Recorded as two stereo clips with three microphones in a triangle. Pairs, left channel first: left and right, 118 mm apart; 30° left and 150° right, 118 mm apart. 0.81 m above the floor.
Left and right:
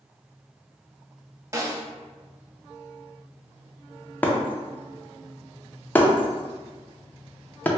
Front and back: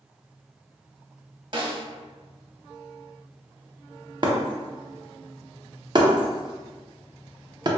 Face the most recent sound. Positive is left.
turn(degrees=165)